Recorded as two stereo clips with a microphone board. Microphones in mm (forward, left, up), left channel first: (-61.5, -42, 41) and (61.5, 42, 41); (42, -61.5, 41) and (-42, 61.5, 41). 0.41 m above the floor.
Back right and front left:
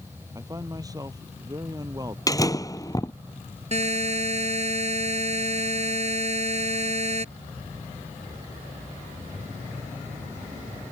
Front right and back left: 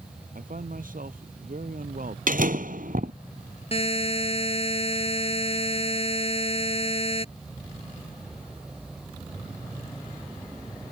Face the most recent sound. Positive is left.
turn(degrees=-5)